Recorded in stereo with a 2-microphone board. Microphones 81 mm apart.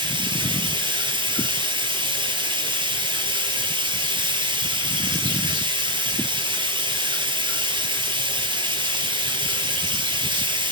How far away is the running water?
About 4.5 m.